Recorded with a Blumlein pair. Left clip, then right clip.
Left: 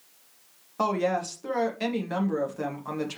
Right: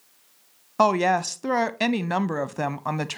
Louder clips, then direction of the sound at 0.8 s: Right 6 dB; 60° right.